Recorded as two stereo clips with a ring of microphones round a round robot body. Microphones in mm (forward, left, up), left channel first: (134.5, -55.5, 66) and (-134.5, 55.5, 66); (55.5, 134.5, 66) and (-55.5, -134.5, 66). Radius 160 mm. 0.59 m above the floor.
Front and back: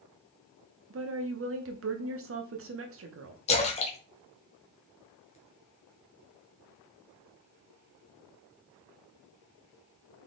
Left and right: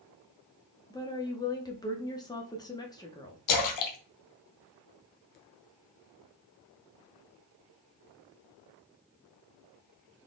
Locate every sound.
0.9 s a woman speaking: 140° left, 0.8 m
3.5 s a splash: 45° left, 1.0 m